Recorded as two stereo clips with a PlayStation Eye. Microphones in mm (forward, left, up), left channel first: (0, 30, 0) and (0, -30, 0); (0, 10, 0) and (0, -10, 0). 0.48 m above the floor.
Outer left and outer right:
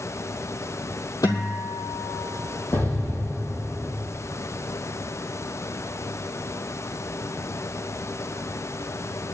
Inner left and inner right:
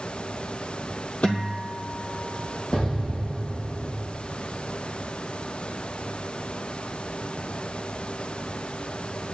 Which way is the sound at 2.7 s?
50° left (ahead or behind).